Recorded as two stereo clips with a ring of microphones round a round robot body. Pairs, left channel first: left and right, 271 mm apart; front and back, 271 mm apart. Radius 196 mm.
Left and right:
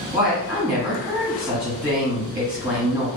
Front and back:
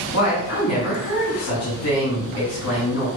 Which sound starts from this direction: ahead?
A woman speaking, at 0.1 s.